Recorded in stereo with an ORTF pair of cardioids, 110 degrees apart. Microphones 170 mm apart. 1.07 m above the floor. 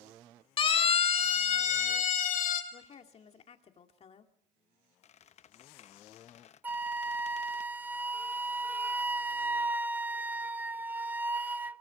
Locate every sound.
0.6 s a siren: 30° left, 2.5 m; by 2.6 s 60° left, 3.5 m
2.7 s a woman speaking: 40° left, 2.5 m
5.0 s a squeak: 40° left, 0.8 m
6.6 s a flute: 10° right, 0.6 m